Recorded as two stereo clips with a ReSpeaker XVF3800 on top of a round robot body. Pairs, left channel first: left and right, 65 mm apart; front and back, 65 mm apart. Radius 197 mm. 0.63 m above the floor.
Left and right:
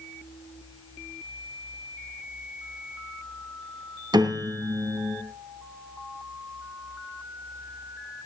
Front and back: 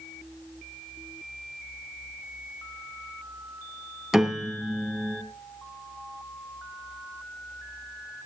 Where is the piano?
95° right, 3 m.